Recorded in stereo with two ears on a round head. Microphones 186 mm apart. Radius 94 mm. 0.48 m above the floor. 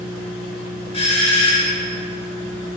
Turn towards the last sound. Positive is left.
turn(degrees=25)  # may be behind; listen again after turning